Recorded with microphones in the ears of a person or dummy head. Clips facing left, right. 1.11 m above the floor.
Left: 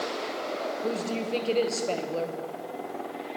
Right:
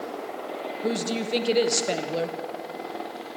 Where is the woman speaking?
20° right (ahead or behind), 0.9 m.